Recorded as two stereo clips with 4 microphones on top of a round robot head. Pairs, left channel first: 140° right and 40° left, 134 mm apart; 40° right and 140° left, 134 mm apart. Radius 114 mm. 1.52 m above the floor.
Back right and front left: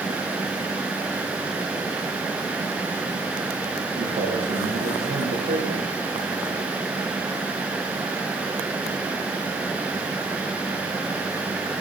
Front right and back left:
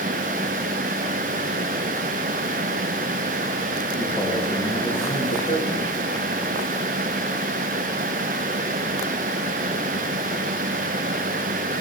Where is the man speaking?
5° left, 3 m.